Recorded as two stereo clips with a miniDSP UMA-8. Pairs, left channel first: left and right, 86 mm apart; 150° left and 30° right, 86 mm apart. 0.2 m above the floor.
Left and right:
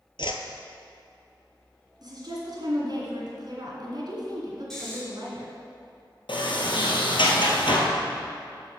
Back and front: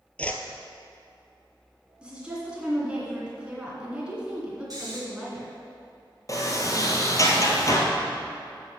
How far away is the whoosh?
About 0.7 m.